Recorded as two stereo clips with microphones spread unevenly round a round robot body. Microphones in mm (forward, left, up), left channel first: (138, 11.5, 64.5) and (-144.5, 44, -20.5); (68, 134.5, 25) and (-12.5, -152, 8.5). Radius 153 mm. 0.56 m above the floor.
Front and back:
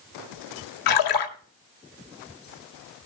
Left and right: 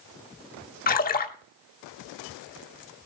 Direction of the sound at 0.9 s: 10° left.